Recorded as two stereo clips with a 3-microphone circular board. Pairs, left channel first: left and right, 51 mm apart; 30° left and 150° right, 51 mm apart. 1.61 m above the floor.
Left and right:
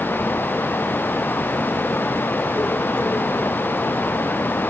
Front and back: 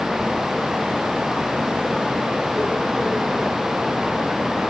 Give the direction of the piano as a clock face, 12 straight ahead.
I don't hear a piano.